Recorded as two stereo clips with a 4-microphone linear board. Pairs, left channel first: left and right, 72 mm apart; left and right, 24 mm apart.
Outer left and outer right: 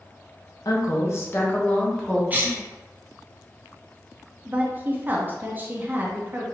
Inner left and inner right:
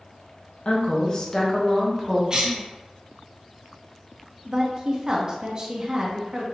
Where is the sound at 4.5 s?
30° right (ahead or behind), 0.7 m.